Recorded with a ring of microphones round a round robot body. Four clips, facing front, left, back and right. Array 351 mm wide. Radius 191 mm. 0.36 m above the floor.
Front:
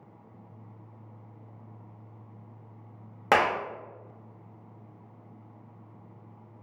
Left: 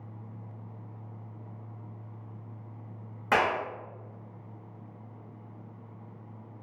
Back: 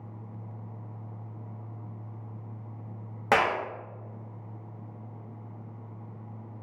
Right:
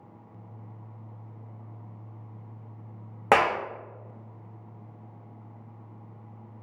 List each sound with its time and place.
3.3 s a clap: 80° right, 0.8 m